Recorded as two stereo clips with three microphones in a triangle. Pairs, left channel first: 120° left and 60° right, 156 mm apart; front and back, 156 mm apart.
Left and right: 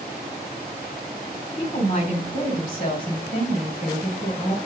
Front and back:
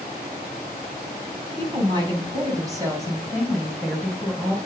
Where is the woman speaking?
130° left, 2.5 m; by 4.6 s 90° left, 2 m.